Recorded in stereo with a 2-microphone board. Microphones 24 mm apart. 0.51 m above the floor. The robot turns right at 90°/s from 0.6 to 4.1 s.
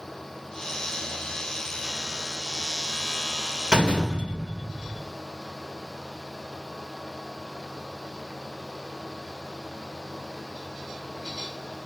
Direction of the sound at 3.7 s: 135° right.